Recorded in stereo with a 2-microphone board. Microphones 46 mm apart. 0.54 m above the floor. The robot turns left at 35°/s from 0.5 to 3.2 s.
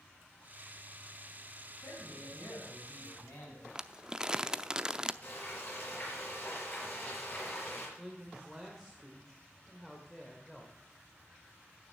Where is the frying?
40° left (ahead or behind), 6 m.